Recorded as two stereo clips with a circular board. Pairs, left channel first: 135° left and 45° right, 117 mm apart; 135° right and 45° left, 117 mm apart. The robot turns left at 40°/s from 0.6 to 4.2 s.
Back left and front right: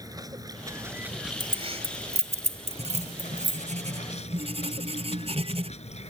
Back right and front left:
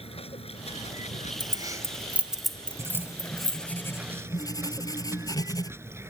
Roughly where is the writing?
Ahead.